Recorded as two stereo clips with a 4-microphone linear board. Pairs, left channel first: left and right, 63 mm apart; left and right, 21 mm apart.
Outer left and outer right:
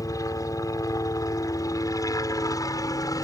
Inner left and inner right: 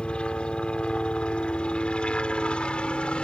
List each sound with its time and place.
0.0 s a helicopter: 65° left (ahead or behind)